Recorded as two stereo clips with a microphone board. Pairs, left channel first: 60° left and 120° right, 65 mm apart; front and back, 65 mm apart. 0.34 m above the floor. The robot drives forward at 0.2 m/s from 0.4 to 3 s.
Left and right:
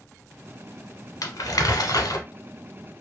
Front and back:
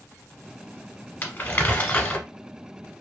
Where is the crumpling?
55° left, 1.1 m; by 2.2 s 65° left, 1.0 m.